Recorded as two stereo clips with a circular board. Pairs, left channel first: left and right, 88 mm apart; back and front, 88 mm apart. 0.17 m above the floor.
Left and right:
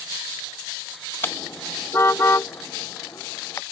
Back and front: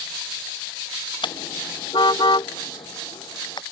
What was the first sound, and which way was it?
A car horn, 155° left.